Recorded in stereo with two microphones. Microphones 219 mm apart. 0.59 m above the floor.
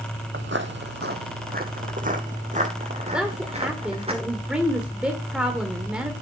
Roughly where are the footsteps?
Right.